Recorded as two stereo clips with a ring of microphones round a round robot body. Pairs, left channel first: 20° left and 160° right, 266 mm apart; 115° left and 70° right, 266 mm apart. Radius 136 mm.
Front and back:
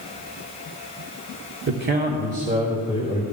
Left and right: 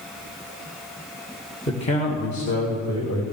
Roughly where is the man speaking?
Behind.